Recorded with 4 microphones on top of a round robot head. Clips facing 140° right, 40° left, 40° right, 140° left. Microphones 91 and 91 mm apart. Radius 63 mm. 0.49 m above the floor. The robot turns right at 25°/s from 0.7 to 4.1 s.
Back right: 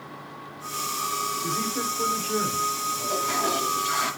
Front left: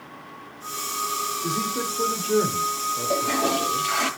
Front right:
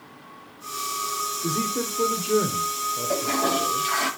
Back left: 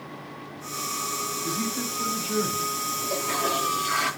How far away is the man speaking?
About 2 m.